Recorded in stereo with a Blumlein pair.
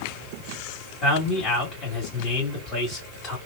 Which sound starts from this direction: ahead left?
A man speaking, at 1.0 s.